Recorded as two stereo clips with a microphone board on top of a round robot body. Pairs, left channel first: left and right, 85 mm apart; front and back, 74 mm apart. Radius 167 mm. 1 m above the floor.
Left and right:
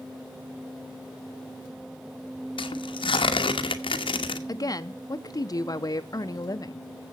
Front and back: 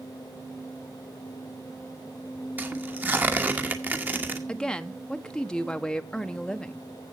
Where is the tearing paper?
110° left, 1.2 m.